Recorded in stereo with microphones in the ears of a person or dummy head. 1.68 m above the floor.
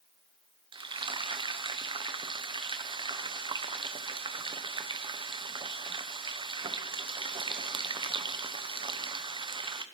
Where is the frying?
25° right (ahead or behind), 0.9 m.